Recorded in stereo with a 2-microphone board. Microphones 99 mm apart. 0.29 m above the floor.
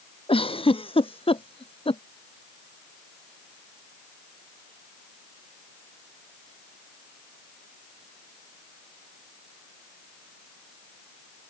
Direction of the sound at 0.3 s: 70° left (ahead or behind).